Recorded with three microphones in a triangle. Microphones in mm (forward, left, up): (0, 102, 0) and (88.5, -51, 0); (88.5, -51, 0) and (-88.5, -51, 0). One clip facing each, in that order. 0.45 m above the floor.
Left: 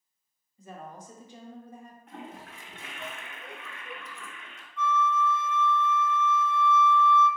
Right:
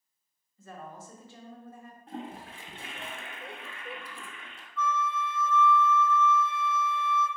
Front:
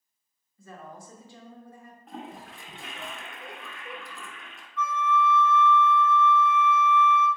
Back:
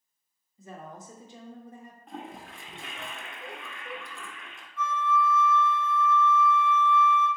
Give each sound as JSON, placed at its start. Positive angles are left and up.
{"t": 0.6, "sound": "a woman speaking", "azimuth_deg": 160, "distance_m": 0.7}
{"t": 2.1, "sound": "a toilet flushing", "azimuth_deg": -90, "distance_m": 0.6}
{"t": 4.8, "sound": "a flute", "azimuth_deg": 175, "distance_m": 0.8}